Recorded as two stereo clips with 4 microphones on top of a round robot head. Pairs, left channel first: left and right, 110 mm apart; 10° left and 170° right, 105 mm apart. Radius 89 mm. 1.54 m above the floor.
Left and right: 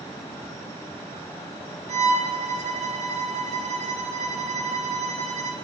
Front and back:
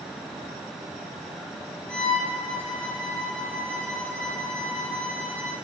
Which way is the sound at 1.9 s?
75° right.